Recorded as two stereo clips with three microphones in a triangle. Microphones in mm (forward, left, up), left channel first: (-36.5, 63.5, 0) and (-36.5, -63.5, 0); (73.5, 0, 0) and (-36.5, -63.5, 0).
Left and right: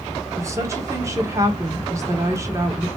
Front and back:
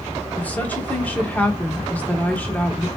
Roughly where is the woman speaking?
Ahead right.